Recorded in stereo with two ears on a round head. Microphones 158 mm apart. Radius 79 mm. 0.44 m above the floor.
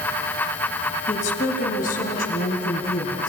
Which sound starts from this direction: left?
A woman speaking, at 1.1 s.